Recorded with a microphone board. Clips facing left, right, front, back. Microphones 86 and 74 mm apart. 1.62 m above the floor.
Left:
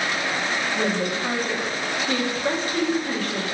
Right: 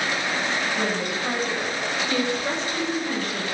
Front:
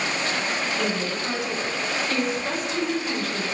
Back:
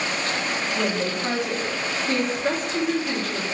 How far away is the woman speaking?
About 1.1 m.